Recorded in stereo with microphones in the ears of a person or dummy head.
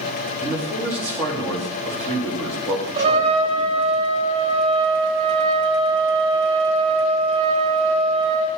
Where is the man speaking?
15° left (ahead or behind), 4 m.